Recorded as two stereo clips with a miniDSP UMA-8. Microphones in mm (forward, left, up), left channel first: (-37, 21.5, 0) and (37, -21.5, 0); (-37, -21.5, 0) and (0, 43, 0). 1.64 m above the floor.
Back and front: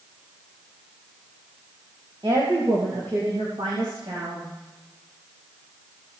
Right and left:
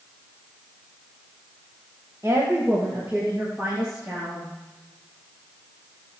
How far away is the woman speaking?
About 1.7 m.